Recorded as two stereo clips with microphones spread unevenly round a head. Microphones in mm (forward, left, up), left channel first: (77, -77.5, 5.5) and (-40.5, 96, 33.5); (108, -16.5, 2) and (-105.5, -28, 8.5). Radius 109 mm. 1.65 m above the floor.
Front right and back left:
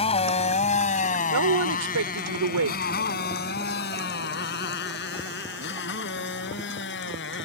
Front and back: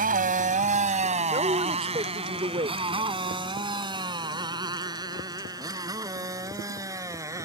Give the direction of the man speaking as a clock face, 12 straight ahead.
8 o'clock.